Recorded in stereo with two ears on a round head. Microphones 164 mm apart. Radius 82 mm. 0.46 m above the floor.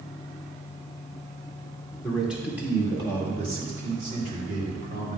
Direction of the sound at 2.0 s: Centre (ahead or behind).